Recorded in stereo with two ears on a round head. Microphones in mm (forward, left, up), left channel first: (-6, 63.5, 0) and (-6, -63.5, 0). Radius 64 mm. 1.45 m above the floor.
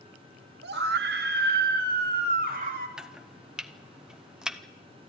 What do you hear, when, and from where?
0.6 s a scream: 80° right, 1.8 m; by 2.9 s 65° right (ahead or behind), 3.5 m
3.0 s chopping: 5° right (ahead or behind), 0.8 m